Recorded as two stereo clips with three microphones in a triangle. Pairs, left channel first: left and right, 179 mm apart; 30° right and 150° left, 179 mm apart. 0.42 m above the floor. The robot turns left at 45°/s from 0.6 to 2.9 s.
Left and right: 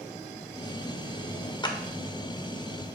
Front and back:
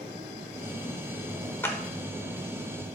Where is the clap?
40° left, 0.9 m; by 1.8 s 35° left, 0.9 m.